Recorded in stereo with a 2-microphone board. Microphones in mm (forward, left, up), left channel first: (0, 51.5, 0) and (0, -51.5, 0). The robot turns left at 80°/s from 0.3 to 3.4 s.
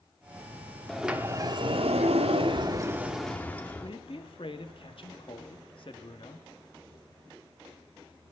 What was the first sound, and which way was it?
A sliding door, 5° left.